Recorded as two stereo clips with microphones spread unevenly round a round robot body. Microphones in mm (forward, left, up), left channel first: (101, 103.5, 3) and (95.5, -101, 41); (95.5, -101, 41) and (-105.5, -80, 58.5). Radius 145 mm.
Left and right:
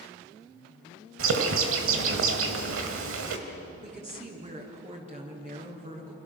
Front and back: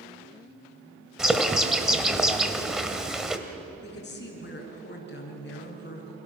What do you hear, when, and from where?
1.2 s a bird: 95° right, 2.5 m
3.8 s a woman speaking: 35° right, 6.5 m